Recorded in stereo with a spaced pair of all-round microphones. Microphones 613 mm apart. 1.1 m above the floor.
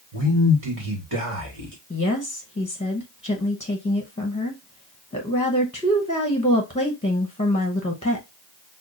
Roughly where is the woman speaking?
Centre.